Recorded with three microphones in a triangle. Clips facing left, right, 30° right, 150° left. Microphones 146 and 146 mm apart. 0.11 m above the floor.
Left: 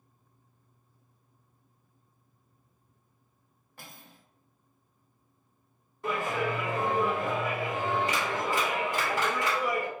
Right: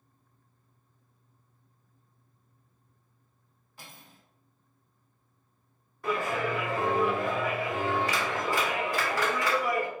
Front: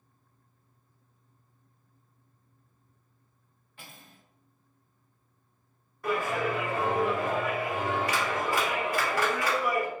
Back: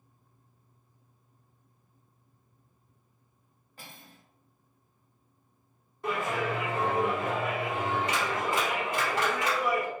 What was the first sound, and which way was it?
Cutlery clinking, 110° left.